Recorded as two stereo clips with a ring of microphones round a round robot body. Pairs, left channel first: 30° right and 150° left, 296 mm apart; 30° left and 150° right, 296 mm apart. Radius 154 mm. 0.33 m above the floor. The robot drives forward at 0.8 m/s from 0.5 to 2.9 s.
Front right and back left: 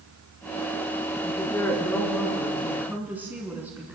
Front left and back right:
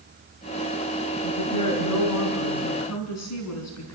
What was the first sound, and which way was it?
A woman speaking, 50° left.